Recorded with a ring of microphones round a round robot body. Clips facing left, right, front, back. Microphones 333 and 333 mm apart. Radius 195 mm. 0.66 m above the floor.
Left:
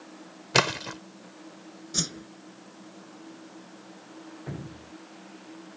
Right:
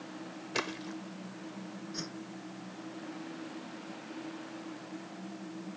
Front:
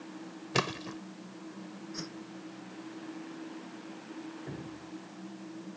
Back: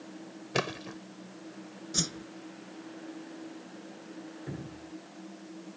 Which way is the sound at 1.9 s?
135° left.